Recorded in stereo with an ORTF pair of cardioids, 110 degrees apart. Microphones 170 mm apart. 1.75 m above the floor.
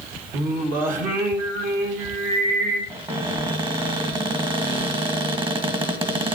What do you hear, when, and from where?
0.3 s singing: 55° right, 2 m
2.9 s a cupboard door: 30° right, 1.8 m